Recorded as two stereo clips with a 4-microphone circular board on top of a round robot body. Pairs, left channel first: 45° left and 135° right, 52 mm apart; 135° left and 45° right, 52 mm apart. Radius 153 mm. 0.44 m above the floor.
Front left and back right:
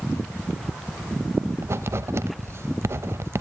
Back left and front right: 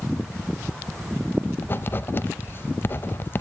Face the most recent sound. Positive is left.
turn(degrees=-175)